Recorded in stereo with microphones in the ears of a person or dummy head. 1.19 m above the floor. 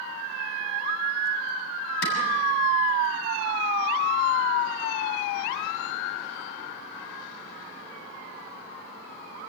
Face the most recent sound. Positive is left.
turn(degrees=85)